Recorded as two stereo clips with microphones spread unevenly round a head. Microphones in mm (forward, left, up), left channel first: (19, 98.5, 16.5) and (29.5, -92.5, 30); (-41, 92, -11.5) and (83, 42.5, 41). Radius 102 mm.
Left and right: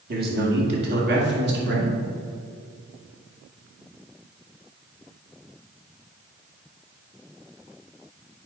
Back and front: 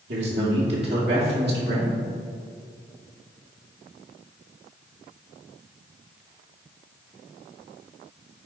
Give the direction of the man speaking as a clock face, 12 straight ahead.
2 o'clock.